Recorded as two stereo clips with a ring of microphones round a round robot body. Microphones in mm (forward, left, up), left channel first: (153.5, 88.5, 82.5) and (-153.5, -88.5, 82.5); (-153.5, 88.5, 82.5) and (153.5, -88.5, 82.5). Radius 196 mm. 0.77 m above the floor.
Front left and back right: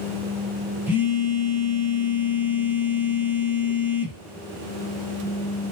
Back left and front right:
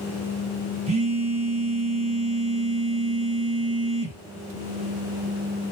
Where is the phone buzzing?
75° right, 0.9 m.